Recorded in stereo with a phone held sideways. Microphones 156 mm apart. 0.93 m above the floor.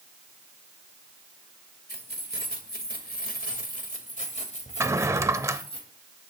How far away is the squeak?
I don't hear a squeak.